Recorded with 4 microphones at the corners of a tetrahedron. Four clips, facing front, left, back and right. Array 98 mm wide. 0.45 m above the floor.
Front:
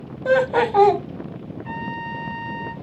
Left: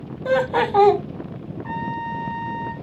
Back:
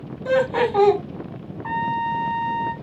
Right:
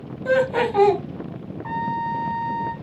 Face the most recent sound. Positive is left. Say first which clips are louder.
# right 3 dB, back 8 dB
turn(degrees=-155)